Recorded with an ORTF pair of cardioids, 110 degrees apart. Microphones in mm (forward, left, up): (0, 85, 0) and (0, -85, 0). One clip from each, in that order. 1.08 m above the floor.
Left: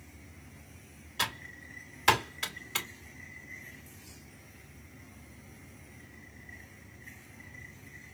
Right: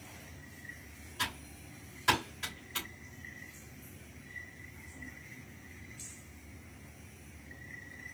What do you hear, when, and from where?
1.2 s typing on a keyboard: 55° left, 2.5 m